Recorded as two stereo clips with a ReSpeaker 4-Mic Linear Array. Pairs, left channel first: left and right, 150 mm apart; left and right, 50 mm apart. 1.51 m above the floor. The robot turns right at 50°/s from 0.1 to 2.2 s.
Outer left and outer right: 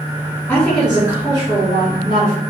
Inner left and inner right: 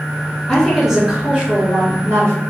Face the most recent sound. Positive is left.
turn(degrees=-110)